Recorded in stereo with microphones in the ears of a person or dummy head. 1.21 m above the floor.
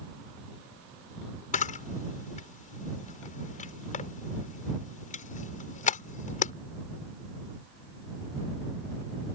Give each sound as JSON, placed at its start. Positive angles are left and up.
{"t": 1.5, "sound": "a camera shutter", "side_deg": 40}